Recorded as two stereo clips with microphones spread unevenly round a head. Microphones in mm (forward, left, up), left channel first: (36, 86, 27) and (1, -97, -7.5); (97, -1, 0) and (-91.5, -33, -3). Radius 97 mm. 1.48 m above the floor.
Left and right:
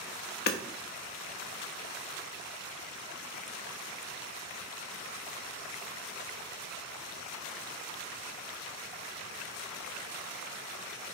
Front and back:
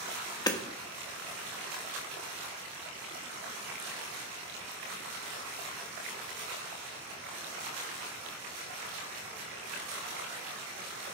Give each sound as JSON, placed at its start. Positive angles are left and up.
{"t": 0.5, "sound": "hammering", "azimuth_deg": 80, "distance_m": 1.2}